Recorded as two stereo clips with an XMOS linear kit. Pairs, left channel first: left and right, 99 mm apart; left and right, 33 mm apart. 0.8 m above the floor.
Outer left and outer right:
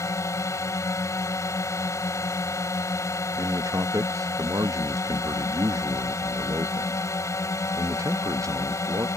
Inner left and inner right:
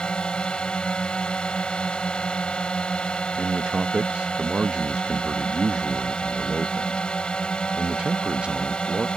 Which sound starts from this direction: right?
A man speaking, at 3.4 s.